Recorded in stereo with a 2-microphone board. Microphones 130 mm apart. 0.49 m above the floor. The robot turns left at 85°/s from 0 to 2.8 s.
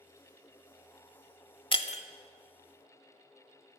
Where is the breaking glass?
40° left (ahead or behind), 0.6 m; by 2.0 s 65° left (ahead or behind), 0.6 m.